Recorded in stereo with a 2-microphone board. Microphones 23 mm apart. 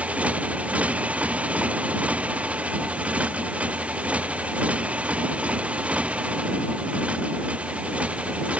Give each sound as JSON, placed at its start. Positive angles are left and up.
{"t": 0.0, "sound": "a motorcycle", "side_deg": -80}